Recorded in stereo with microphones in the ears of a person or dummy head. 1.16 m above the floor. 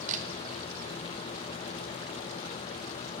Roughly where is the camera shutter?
Right.